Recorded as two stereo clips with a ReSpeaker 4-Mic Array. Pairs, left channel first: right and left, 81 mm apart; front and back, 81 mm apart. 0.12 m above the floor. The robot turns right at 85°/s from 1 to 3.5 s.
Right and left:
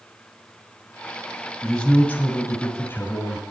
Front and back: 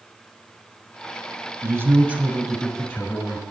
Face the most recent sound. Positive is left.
turn(degrees=-15)